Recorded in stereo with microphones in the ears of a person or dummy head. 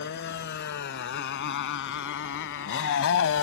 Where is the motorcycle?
60° left (ahead or behind); by 3.4 s 75° left (ahead or behind).